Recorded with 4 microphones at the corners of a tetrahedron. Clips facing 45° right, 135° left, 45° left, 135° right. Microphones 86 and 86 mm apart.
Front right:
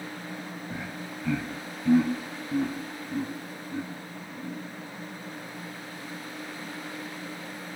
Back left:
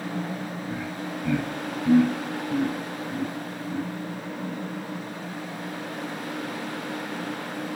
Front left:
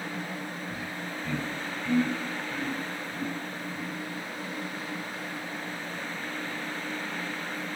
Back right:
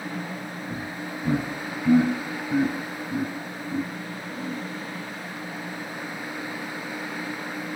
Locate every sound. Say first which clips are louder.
0.7 s laughter: back left 5 dB, back right 3 dB; 125° right, 1.4 m; by 4.6 s 130° right, 3 m